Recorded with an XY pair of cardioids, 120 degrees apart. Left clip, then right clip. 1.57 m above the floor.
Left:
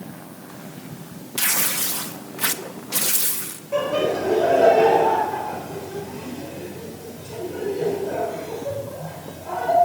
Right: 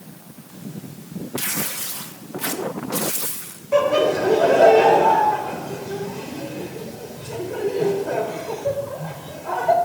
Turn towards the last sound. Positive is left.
turn(degrees=-40)